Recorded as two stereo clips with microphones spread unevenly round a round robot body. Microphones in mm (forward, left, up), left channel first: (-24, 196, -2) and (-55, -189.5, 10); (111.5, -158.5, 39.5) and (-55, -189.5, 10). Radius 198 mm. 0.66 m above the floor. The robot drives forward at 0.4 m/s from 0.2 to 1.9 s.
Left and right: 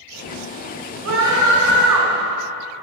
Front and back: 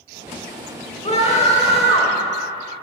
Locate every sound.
1.1 s a scream: 40° right, 2.5 m; by 2.2 s 50° right, 2.5 m